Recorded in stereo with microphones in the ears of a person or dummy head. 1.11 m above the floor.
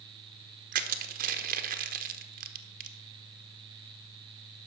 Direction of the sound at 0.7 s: 45° right (ahead or behind).